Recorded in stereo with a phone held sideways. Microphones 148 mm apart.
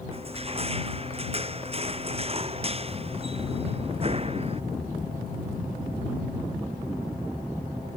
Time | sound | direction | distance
0.1 | crushing | 40° right (ahead or behind) | ?